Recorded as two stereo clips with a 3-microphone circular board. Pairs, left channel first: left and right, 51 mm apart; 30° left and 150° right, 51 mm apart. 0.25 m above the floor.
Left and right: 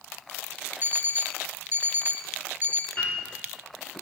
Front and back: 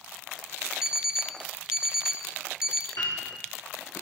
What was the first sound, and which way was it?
An alarm clock, 80° right.